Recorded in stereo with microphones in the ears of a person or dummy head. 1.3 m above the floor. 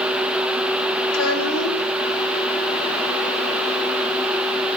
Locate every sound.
1.1 s a child speaking: 80° left, 4.5 m